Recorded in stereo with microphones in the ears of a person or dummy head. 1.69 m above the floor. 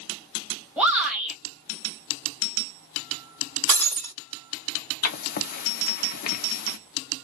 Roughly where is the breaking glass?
Right.